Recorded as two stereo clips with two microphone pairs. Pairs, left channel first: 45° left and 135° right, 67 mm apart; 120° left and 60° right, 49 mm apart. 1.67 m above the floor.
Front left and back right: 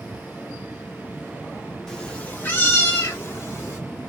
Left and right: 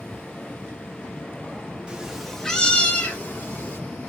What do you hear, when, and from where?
1.9 s a cat meowing: 25° right, 1.1 m; by 3.8 s 90° left, 2 m